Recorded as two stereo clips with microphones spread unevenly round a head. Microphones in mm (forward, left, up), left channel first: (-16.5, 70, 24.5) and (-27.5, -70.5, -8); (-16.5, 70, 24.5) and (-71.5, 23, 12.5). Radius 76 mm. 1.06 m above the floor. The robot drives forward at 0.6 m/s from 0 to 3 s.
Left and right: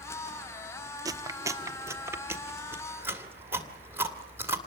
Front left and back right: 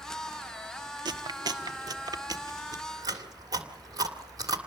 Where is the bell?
No bell in this recording.